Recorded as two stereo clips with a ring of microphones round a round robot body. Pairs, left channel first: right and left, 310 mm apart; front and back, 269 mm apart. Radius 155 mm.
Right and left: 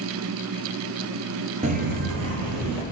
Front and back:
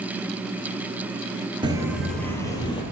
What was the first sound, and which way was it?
Footsteps, 130° left.